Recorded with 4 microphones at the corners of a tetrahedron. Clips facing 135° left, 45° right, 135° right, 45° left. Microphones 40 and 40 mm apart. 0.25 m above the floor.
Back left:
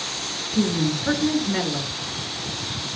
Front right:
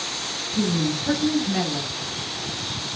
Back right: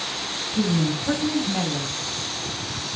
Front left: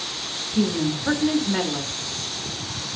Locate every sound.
0.6 s a woman speaking: 75° left, 3.5 m